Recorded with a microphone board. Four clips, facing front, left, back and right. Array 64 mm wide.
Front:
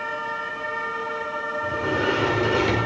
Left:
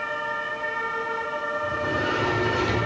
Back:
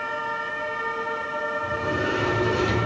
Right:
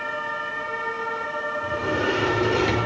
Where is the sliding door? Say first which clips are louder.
Right 3 dB, front 5 dB; 30° right, 2 m.